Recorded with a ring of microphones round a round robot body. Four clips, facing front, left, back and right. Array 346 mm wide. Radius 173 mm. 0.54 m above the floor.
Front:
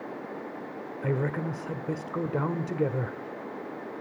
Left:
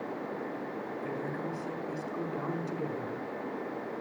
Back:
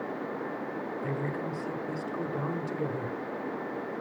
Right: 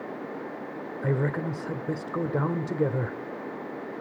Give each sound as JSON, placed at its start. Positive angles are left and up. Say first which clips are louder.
{"t": 1.0, "sound": "a woman speaking", "louder": "right 11 dB, front 7 dB", "azimuth_deg": -55, "distance_m": 1.6}